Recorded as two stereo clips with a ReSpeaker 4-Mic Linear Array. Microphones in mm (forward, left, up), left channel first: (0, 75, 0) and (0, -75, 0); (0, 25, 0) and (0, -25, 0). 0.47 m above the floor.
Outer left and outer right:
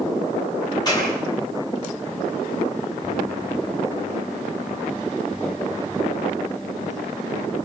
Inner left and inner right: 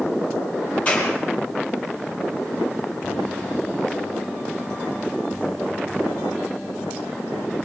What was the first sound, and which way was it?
A clap, 25° left (ahead or behind).